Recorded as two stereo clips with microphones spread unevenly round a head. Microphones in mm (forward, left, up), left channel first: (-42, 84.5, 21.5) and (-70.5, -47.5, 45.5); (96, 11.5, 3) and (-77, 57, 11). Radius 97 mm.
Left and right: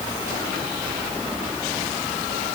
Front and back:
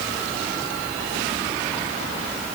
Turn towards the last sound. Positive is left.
No sound to turn to.